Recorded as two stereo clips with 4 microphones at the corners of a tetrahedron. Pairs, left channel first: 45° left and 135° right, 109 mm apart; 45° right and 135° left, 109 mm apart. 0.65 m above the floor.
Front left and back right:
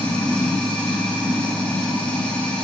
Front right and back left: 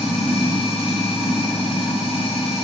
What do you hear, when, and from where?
0.0 s running water: 35° right, 3.5 m